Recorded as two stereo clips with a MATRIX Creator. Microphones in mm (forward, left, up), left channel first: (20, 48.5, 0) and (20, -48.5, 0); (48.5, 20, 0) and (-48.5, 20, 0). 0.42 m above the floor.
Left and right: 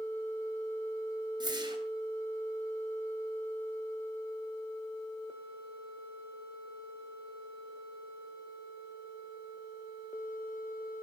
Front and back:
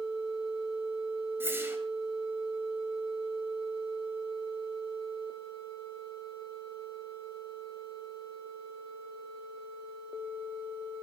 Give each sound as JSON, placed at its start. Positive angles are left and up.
{"t": 1.4, "sound": "a whoosh", "azimuth_deg": -120, "distance_m": 2.5}